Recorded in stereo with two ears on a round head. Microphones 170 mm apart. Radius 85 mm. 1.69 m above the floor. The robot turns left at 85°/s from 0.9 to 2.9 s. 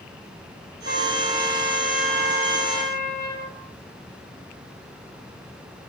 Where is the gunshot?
No gunshot in this recording.